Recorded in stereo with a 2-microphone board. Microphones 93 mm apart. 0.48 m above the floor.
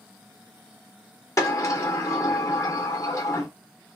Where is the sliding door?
35° left (ahead or behind), 0.5 m.